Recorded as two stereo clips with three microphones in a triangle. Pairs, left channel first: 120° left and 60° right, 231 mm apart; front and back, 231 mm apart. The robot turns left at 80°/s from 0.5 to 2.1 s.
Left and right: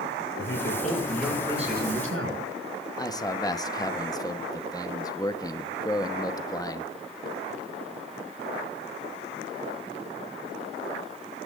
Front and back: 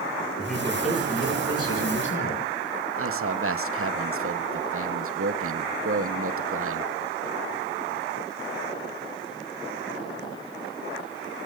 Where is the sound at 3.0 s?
170° right, 1.0 m.